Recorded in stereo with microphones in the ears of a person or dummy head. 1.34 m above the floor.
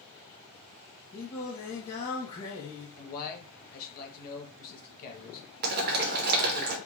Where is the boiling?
55° right (ahead or behind), 1.1 m.